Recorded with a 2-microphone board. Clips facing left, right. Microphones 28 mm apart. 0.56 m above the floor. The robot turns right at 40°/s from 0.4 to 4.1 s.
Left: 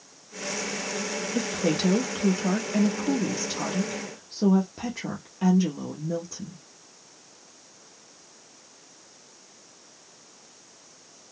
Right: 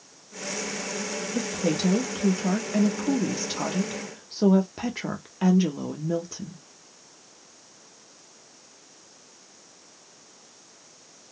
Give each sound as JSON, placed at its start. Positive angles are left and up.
{"t": 1.4, "sound": "a woman speaking", "azimuth_deg": 135, "distance_m": 0.7}